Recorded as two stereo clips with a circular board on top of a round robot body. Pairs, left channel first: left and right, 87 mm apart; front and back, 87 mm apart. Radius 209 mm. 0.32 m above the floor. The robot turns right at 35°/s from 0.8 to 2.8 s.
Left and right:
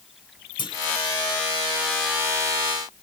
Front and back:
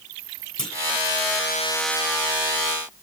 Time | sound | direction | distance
0.6 | a clunk | 80° left | 1.7 m